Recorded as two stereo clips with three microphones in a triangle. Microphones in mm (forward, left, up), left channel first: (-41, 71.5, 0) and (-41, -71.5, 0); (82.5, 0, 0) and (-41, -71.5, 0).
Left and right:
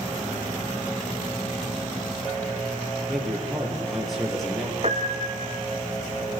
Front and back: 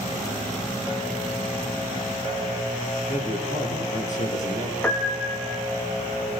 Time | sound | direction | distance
3.1 | a man speaking | straight ahead | 6 m
4.8 | a piano | 45° right | 3.5 m